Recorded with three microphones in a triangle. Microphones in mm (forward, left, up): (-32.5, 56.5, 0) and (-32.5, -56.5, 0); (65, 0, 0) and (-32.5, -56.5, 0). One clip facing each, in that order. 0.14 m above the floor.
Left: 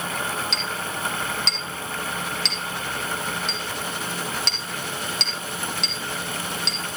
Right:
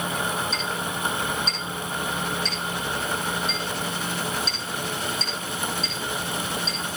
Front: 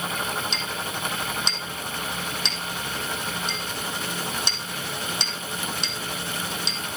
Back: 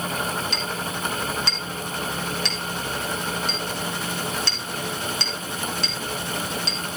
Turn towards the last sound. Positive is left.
turn(degrees=100)